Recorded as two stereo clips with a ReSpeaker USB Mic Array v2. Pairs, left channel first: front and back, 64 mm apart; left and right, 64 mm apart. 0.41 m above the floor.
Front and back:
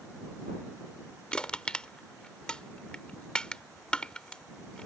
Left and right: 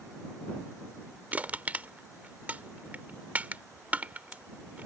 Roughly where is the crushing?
Ahead right.